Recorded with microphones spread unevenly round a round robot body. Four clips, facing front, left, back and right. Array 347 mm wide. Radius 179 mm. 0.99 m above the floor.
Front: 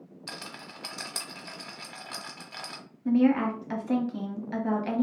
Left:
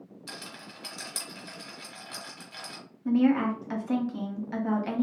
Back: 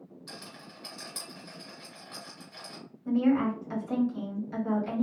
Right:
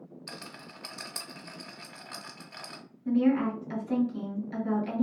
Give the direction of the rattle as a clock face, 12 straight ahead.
12 o'clock.